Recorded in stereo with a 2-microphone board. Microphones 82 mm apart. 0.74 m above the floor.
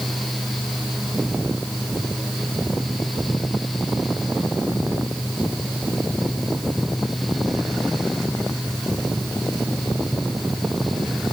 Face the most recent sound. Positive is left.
No sound to turn to.